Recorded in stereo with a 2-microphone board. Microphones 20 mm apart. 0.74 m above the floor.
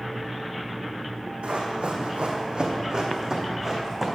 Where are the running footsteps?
70° right (ahead or behind), 2 m; by 4.1 s 20° right (ahead or behind), 2.5 m.